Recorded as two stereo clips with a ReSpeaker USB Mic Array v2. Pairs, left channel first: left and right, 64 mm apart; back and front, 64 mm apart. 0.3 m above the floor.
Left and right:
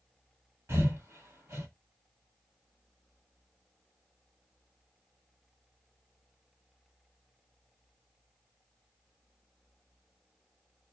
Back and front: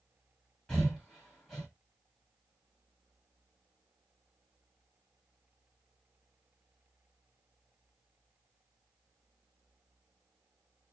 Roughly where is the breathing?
Right.